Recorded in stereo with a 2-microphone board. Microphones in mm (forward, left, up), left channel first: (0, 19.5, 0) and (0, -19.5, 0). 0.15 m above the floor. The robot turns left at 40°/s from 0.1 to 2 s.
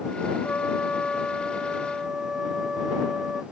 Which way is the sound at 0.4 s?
45° left.